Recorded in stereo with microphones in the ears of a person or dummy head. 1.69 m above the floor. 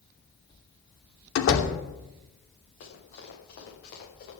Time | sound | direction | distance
1.4 | a door slam | 70° left (ahead or behind) | 2.5 m
2.8 | running footsteps | 65° left (ahead or behind) | 9.5 m